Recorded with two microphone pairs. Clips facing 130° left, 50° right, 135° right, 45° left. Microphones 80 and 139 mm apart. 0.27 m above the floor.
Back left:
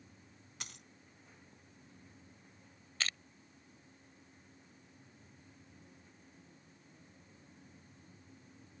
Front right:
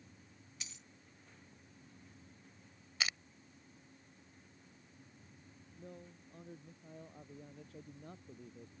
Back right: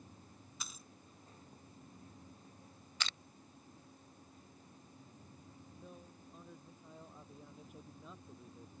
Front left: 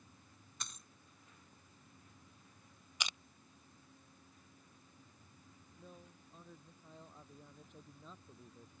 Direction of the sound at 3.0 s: 10° left.